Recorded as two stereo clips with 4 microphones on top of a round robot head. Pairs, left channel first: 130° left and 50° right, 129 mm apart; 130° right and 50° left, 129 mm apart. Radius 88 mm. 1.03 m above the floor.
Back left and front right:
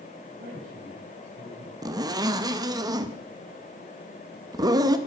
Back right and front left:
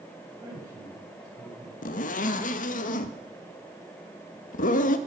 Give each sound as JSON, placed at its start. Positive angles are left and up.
{"t": 0.4, "sound": "a man speaking", "azimuth_deg": -20, "distance_m": 6.0}
{"t": 1.8, "sound": "a zipper", "azimuth_deg": -110, "distance_m": 1.0}